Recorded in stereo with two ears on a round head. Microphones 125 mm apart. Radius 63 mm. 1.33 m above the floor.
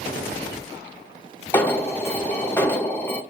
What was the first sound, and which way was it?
An alarm, 15° left (ahead or behind).